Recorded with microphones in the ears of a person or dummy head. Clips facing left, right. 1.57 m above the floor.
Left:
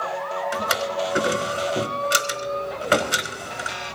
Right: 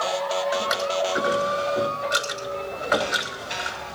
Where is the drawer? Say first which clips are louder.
Right 1 dB; 45° left (ahead or behind), 4 m.